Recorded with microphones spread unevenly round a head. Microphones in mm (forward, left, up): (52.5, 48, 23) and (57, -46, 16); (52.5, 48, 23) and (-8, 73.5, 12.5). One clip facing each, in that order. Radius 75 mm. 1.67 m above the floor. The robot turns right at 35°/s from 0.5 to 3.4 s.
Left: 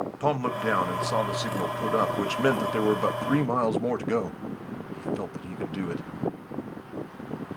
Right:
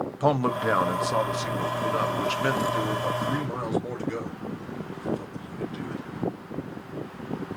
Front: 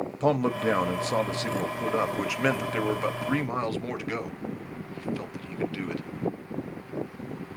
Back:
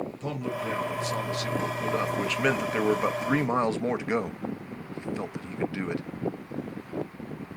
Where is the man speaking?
10° right, 0.8 m; by 6.0 s 90° left, 0.8 m.